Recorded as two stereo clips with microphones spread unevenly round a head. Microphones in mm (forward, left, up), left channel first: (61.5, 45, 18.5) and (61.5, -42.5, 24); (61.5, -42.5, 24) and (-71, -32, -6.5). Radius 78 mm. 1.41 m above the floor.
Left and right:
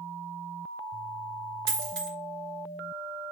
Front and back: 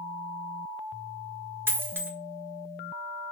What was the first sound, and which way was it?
A dropped coin, 105° right.